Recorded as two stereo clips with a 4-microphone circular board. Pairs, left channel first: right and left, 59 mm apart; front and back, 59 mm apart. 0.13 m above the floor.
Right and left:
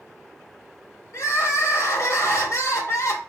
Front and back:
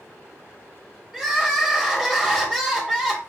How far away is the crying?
About 3 m.